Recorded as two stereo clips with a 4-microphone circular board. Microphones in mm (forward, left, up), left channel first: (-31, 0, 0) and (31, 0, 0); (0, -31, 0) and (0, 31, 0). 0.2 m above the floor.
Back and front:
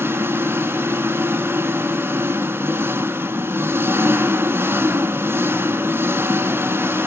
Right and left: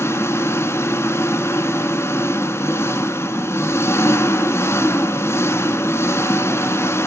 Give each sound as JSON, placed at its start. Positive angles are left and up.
{"t": 0.0, "sound": "an engine running", "azimuth_deg": -50, "distance_m": 0.9}